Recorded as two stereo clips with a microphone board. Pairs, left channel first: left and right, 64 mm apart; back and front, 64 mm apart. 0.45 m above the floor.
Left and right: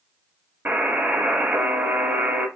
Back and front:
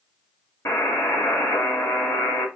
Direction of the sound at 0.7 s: 150° right.